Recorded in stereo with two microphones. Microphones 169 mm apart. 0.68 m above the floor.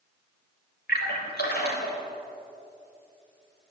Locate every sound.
0.9 s a splash: 75° left (ahead or behind), 3.5 m